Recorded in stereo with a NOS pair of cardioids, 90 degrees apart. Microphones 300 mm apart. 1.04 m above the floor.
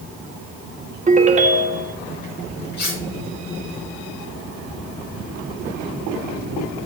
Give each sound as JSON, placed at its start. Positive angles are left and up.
{"t": 1.1, "sound": "a ringtone", "azimuth_deg": -25, "distance_m": 1.2}
{"t": 2.8, "sound": "cutlery clinking", "azimuth_deg": 55, "distance_m": 5.5}